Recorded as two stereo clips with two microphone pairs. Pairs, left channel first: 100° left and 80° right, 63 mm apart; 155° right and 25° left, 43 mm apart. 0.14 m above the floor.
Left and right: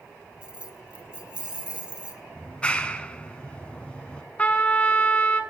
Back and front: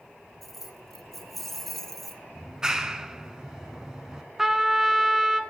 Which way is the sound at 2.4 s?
60° left.